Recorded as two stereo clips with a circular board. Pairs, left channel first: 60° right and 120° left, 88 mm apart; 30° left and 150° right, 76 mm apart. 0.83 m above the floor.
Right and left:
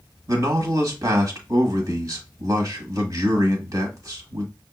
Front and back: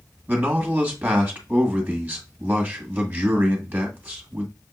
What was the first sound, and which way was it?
A man speaking, 150° left.